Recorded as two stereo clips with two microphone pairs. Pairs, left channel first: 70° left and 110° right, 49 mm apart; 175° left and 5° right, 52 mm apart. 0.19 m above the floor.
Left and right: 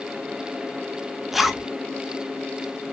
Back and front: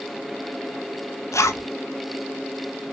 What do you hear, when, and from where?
1.3 s a zipper: 170° left, 0.6 m